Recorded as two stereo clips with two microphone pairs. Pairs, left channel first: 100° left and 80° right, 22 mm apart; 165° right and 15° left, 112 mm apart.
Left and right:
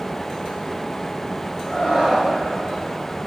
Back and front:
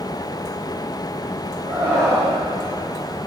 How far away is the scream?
About 9.5 m.